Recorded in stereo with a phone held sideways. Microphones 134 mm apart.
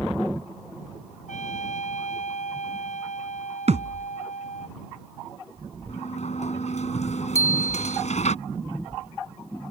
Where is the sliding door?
65° left (ahead or behind).